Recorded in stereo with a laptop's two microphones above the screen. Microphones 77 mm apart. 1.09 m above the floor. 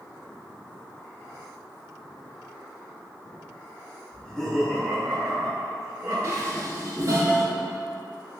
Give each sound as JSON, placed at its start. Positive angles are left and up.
{"t": 4.1, "sound": "laughter", "side_deg": 20, "distance_m": 0.7}
{"t": 6.2, "sound": "dishes clattering", "side_deg": -45, "distance_m": 0.6}